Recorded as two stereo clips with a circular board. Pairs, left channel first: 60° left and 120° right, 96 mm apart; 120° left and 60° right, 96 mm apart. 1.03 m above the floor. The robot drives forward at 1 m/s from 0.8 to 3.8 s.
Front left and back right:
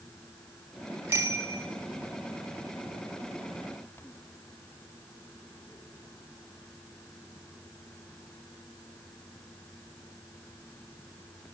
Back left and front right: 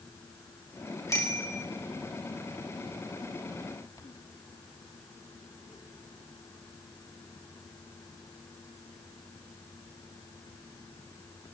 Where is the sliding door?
No sliding door in this recording.